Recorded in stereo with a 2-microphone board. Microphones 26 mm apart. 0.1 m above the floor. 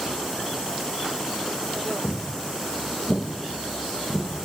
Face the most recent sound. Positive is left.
turn(degrees=30)  # may be behind; listen again after turning